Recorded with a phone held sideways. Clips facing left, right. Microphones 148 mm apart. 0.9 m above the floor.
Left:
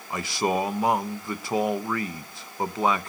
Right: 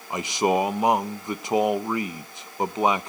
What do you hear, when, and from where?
0.1 s a man speaking: 20° right (ahead or behind), 0.5 m